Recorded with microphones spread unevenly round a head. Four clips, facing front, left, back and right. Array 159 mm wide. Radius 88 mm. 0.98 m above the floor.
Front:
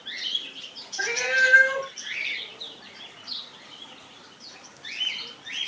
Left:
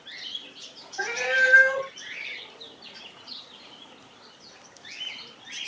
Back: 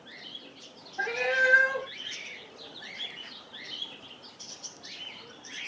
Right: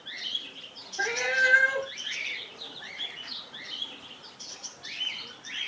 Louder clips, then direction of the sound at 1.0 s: Left 2 dB, front 3 dB; 145° left.